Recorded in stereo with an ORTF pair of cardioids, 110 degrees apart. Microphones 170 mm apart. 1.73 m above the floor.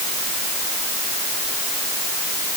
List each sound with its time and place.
Only background noise.